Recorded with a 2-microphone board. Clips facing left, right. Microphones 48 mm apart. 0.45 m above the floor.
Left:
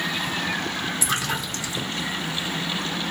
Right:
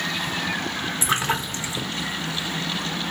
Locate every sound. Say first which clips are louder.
1.0 s a splash: right 6 dB; 25° right (ahead or behind), 0.9 m